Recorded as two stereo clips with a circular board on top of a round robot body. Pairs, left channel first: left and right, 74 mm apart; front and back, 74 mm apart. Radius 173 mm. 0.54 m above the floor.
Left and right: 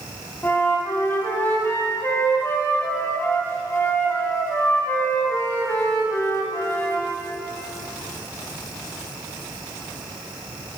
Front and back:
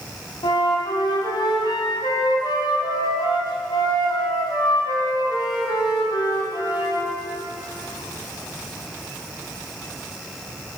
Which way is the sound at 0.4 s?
25° left.